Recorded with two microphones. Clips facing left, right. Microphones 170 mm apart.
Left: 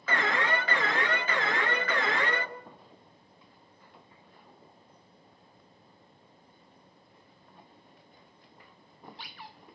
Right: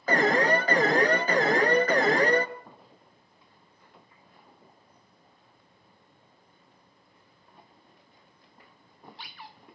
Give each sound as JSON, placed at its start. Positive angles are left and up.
{"t": 0.1, "sound": "an alarm", "side_deg": -40, "distance_m": 1.0}